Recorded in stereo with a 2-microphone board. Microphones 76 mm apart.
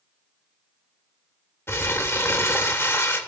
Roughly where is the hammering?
I don't hear hammering.